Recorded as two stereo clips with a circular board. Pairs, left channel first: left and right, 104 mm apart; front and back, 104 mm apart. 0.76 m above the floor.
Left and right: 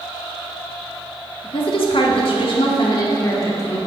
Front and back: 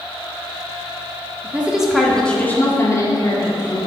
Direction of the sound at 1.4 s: 110° left.